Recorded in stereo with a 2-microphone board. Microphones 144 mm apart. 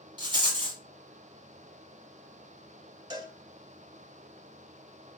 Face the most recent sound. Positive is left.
turn(degrees=-30)  # may be behind; listen again after turning